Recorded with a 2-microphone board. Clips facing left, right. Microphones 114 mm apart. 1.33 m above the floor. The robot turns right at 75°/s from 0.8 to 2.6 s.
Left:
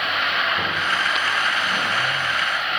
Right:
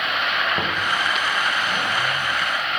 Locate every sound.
0.6 s knocking: 40° right (ahead or behind), 1.1 m